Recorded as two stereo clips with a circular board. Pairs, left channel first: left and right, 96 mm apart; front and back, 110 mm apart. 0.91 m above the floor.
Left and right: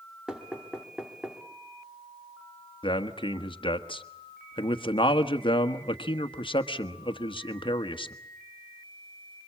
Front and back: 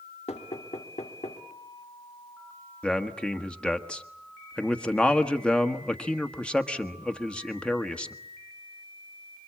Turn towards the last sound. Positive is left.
turn(degrees=80)